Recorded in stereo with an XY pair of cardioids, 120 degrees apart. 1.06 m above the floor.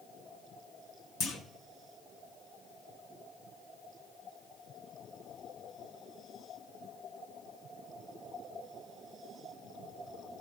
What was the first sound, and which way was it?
A clunk, 60° left.